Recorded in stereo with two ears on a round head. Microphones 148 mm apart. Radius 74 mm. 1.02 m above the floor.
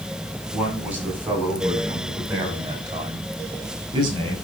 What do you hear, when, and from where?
0.5 s a man speaking: 10° right (ahead or behind), 7 m; by 4.3 s 30° right (ahead or behind), 5.5 m